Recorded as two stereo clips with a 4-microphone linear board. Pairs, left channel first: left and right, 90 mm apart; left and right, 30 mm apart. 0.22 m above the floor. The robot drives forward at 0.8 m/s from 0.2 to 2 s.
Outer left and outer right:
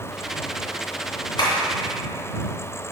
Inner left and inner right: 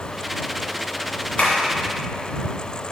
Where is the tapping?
50° left (ahead or behind), 2.5 m.